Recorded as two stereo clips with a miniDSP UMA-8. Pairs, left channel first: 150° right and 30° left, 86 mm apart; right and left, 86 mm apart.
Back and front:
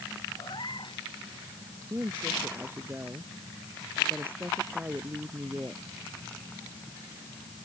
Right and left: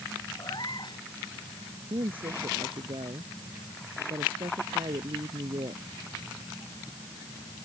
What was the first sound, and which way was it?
A cat meowing, 125° right.